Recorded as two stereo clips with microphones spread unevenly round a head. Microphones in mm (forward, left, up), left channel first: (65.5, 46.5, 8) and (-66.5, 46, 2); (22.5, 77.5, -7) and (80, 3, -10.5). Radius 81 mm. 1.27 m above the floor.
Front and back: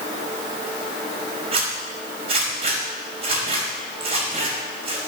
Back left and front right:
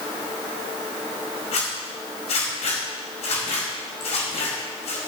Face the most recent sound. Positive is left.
turn(degrees=135)